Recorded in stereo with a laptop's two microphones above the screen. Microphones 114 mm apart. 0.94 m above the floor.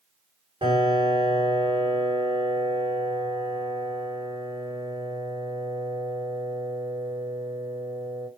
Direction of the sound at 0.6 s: 45° right (ahead or behind).